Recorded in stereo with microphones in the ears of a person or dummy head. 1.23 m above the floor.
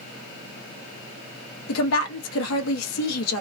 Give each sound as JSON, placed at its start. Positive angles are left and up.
{"t": 1.7, "sound": "a woman speaking", "side_deg": 80, "distance_m": 1.1}